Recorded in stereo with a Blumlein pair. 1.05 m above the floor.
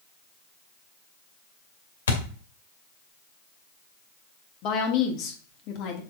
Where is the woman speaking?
40° left, 2.5 m.